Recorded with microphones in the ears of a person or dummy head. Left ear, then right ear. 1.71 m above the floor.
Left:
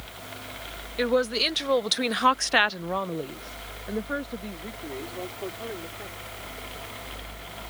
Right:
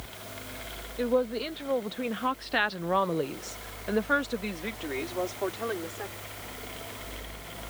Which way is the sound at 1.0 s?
70° left (ahead or behind).